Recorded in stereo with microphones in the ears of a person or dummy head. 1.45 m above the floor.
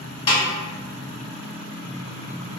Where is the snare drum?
35° left (ahead or behind), 1.2 m.